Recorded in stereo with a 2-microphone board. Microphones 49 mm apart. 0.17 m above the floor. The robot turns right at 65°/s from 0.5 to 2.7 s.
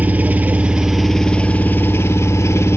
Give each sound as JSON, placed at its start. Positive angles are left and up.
{"t": 0.0, "sound": "an engine running", "azimuth_deg": -35, "distance_m": 0.8}